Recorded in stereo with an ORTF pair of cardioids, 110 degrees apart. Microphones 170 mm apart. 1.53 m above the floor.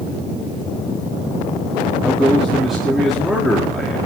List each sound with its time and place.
2.0 s a man speaking: straight ahead, 4 m